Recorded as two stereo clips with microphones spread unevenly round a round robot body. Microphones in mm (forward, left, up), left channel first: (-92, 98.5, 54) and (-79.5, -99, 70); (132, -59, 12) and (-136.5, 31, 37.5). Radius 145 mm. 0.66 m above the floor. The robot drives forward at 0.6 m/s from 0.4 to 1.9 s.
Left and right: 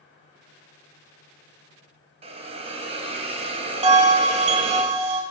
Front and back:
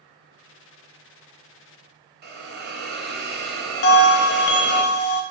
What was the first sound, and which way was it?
A hiss, 145° right.